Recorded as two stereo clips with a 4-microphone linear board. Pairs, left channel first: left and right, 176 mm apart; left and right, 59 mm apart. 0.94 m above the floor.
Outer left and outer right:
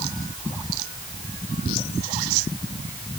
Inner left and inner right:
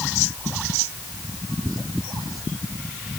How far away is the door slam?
I don't hear a door slam.